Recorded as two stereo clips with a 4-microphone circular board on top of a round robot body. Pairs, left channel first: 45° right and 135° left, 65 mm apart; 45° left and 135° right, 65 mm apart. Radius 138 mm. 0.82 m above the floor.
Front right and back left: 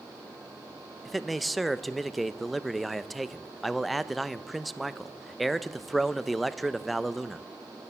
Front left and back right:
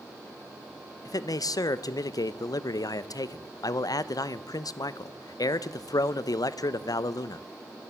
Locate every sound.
1.1 s a man speaking: 45° left, 0.5 m